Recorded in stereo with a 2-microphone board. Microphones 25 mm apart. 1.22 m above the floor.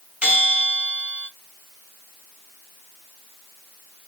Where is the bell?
65° right (ahead or behind), 2 m.